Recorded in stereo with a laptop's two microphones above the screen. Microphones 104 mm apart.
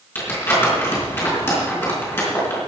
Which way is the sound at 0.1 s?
25° left (ahead or behind).